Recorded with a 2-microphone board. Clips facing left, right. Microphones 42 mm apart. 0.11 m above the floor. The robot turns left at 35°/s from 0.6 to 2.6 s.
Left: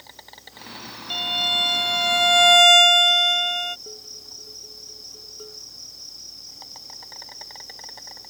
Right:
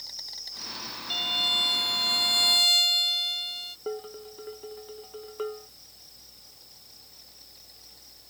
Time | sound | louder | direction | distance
0.0 | an insect | even | 145° left | ?
1.1 | a violin | left 4 dB | 160° left | ?
3.9 | dishes clattering | right 8 dB | 50° right (ahead or behind) | ?